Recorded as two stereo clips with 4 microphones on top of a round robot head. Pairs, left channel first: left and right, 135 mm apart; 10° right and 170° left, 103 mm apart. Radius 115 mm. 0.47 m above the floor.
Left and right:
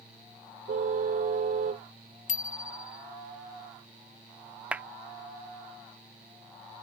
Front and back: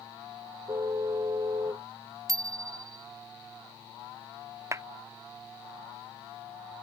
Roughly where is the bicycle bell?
Behind left.